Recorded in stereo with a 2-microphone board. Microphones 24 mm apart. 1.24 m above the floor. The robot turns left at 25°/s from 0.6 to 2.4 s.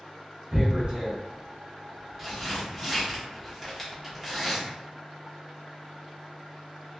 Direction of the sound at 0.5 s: 40° right (ahead or behind).